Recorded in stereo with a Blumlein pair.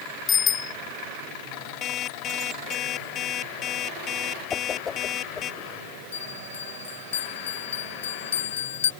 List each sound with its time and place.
0.3 s a bicycle bell: 25° left
1.8 s an alarm clock: 30° left
4.5 s a whoosh: 20° left
6.1 s a bell: 60° left